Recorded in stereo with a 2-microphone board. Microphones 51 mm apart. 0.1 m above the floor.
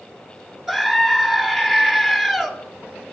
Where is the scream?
5° right (ahead or behind), 2.0 m.